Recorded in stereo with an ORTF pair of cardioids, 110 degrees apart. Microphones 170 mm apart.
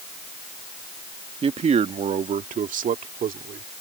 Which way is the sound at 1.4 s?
35° right.